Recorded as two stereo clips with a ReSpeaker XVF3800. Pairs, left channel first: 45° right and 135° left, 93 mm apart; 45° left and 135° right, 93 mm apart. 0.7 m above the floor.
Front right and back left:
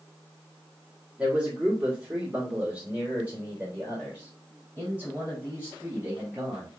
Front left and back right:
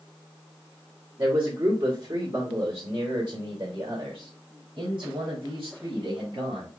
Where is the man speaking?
150° right, 1.2 m; by 6.7 s 155° right, 4 m.